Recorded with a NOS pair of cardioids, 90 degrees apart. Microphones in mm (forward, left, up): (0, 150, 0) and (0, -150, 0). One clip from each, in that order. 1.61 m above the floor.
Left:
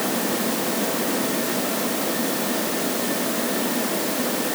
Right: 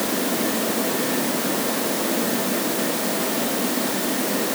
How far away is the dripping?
No dripping in this recording.